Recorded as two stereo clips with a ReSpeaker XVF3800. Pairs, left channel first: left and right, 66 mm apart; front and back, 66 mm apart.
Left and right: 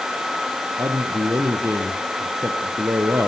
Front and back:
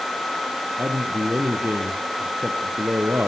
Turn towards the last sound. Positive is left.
turn(degrees=-120)